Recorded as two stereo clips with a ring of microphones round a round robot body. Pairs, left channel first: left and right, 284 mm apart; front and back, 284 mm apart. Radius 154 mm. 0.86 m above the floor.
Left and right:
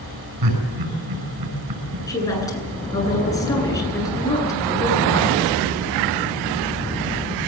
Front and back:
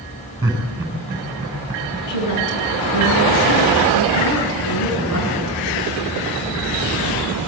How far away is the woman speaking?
About 9.5 m.